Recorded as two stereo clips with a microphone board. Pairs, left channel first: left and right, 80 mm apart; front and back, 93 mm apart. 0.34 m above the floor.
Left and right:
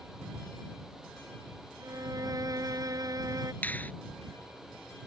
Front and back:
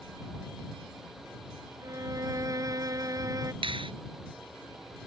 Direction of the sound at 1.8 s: 130° right.